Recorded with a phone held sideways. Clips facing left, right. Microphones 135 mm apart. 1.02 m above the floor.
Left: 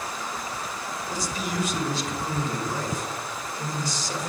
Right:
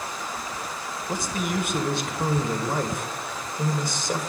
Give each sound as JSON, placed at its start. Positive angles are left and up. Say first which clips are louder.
{"t": 1.1, "sound": "a man speaking", "louder": "right 4 dB", "side_deg": -55, "distance_m": 1.2}